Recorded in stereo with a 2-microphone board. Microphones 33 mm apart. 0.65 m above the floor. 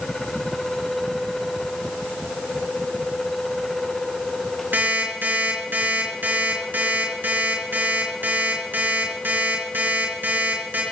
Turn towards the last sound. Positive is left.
turn(degrees=-70)  # may be behind; listen again after turning